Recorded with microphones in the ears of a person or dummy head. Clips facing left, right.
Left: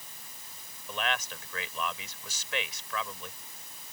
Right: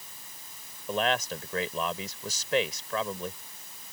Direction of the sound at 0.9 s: 25° right (ahead or behind).